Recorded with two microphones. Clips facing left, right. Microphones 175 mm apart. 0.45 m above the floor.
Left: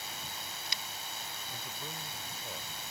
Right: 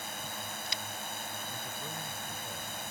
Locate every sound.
0.0 s a drone: 55° right (ahead or behind)
1.5 s a man speaking: 5° left (ahead or behind)